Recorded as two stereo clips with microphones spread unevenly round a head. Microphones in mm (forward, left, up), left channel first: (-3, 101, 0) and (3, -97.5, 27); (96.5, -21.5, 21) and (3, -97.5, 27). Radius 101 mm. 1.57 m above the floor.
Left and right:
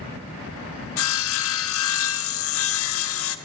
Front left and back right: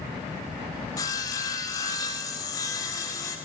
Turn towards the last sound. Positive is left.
turn(degrees=115)